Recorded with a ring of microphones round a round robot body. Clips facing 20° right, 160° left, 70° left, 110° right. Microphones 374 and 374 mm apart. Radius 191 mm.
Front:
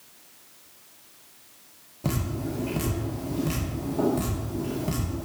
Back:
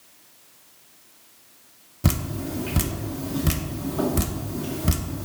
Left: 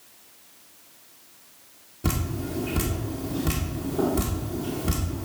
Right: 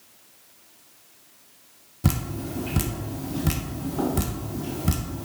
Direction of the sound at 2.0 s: 175° right.